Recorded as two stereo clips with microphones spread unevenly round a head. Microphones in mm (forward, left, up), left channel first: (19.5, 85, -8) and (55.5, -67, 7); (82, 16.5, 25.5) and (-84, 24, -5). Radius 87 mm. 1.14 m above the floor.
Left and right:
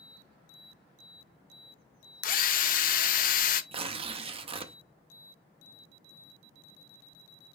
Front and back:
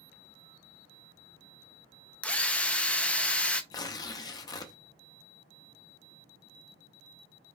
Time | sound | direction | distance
2.2 | a drill | 75° left | 0.6 m
3.7 | tearing paper | 50° right | 0.6 m